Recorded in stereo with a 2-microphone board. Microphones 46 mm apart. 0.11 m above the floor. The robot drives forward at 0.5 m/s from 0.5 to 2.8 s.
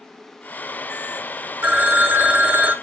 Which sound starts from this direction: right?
A phone ringing, at 1.6 s.